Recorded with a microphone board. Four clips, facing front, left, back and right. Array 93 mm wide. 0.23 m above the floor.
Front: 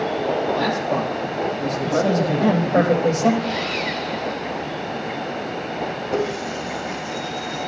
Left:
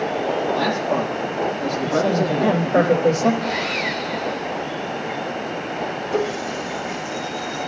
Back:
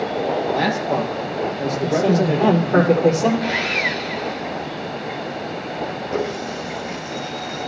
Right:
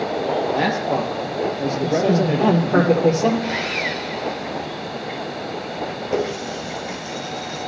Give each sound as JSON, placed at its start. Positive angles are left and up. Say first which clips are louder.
{"t": 0.5, "sound": "a man speaking", "louder": "even, back 1 dB", "azimuth_deg": -125, "distance_m": 6.0}
{"t": 1.8, "sound": "a man speaking", "louder": "right 1 dB, back 2 dB", "azimuth_deg": -135, "distance_m": 9.0}
{"t": 3.4, "sound": "sawing", "louder": "left 1 dB, back 2 dB", "azimuth_deg": -165, "distance_m": 2.5}
{"t": 6.1, "sound": "a running tap", "louder": "even, front 1 dB", "azimuth_deg": -80, "distance_m": 4.0}